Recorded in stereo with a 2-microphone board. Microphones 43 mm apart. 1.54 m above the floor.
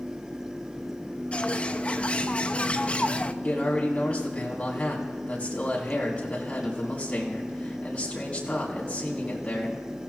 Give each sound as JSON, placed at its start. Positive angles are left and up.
{"t": 1.3, "sound": "a bird", "side_deg": 30, "distance_m": 0.5}
{"t": 3.4, "sound": "a man speaking", "side_deg": 30, "distance_m": 4.0}